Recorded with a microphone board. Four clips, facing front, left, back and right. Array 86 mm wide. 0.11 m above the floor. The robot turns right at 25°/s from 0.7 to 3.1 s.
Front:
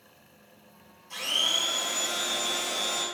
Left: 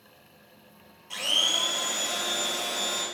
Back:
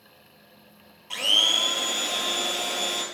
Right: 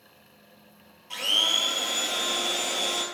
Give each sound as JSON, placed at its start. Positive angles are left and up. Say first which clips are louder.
{"t": 1.1, "sound": "a blender", "louder": "right 1 dB, back 5 dB", "azimuth_deg": -175, "distance_m": 0.5}